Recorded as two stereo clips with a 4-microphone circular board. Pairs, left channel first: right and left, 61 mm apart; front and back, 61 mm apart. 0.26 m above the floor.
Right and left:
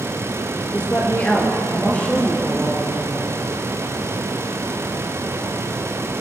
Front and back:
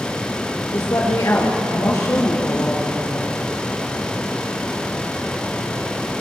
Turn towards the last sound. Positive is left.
turn(degrees=-25)